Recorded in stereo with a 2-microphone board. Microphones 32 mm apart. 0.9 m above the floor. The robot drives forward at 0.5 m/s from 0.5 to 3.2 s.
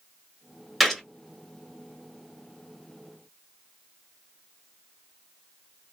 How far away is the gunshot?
About 1.4 m.